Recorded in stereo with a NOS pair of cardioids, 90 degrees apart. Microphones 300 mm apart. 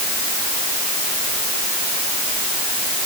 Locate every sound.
Only background noise.